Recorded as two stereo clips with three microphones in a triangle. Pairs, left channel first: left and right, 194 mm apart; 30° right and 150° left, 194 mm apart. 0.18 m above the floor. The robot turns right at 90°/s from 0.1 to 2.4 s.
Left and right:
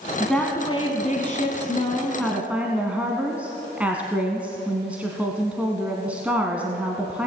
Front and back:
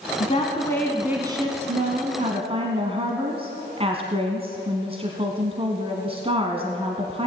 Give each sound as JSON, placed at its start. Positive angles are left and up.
{"t": 0.2, "sound": "a woman speaking", "azimuth_deg": -5, "distance_m": 1.3}